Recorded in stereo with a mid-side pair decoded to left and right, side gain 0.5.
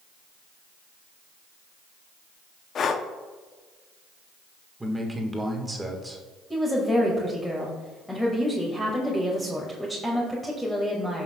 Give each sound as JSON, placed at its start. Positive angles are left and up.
{"t": 2.8, "sound": "breathing", "azimuth_deg": 50, "distance_m": 0.7}
{"t": 4.8, "sound": "a man speaking", "azimuth_deg": -15, "distance_m": 1.6}
{"t": 6.5, "sound": "a woman speaking", "azimuth_deg": 5, "distance_m": 2.0}